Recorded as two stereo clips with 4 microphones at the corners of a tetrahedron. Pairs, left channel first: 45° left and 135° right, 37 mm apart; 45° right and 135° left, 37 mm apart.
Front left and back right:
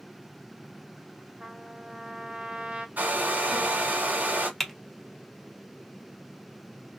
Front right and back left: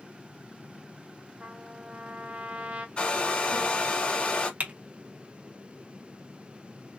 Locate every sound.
1.4 s a trumpet: 170° left, 0.9 m
3.0 s a hair dryer: 100° right, 1.2 m
4.6 s typing on a keyboard: 130° left, 0.9 m